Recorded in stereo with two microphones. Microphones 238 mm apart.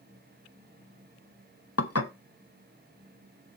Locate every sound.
1.8 s dishes clattering: 80° left, 0.9 m